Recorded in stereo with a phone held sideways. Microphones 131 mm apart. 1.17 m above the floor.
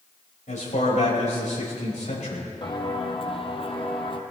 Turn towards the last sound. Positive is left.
turn(degrees=40)  # may be behind; listen again after turning